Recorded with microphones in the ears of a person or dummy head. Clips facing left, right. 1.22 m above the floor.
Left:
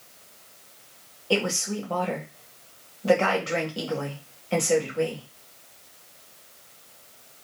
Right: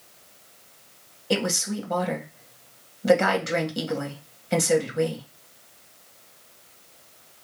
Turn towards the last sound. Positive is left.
turn(degrees=-25)  # may be behind; listen again after turning